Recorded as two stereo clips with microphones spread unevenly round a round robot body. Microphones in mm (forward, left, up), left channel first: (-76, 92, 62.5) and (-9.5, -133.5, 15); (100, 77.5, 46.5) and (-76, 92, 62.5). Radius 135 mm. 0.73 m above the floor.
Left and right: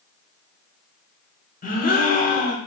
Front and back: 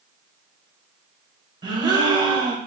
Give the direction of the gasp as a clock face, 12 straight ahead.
8 o'clock.